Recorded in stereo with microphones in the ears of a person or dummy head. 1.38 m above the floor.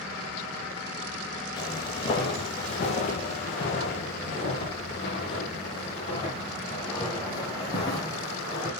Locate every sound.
1.6 s footsteps: 30° left (ahead or behind), 1.7 m; by 8.7 s 25° left (ahead or behind), 3.5 m